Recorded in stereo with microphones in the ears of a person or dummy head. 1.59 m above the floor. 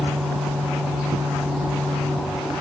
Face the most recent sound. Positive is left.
No sound to turn to.